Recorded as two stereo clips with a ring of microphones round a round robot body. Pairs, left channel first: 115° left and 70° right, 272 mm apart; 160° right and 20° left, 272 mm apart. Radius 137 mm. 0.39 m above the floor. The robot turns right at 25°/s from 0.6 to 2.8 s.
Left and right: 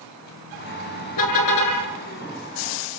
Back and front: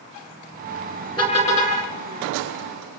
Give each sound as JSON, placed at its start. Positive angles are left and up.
{"t": 1.2, "sound": "a car horn", "azimuth_deg": 125, "distance_m": 6.0}